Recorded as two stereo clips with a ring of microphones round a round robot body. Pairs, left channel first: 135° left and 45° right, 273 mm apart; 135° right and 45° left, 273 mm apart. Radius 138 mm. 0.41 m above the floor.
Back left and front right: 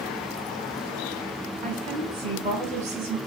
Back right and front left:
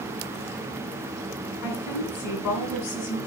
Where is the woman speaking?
110° right, 3.5 m.